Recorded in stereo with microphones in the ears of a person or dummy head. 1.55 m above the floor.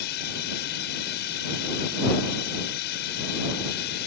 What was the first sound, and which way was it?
A drone, 55° left (ahead or behind).